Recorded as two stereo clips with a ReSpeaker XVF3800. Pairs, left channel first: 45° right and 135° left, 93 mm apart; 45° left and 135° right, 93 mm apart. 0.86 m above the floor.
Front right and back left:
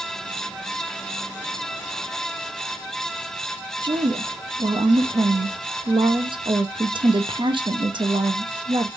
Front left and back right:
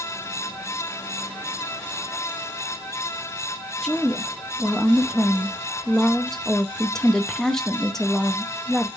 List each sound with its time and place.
3.8 s a woman speaking: 130° left, 0.5 m